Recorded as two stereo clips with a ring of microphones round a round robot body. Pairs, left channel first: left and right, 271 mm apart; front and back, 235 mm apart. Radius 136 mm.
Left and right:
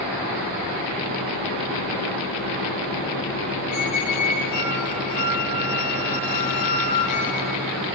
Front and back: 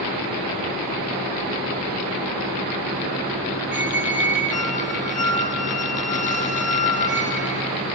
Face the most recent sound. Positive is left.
turn(degrees=60)